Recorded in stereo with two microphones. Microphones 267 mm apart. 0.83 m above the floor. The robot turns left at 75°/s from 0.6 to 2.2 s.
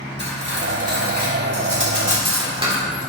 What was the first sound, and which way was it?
Cutlery clinking, 40° right (ahead or behind).